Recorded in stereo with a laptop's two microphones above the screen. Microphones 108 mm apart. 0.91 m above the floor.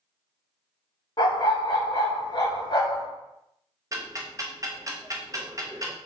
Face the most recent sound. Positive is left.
turn(degrees=-30)  # may be behind; listen again after turning